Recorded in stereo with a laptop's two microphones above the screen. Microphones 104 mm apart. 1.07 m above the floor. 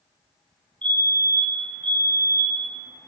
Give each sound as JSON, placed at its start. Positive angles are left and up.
{"t": 0.8, "sound": "a fire alarm", "side_deg": -50, "distance_m": 9.0}